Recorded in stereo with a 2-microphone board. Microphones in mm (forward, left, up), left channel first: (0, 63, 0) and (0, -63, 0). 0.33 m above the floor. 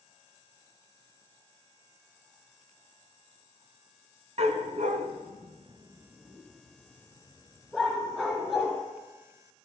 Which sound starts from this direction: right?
A dog barking, at 4.4 s.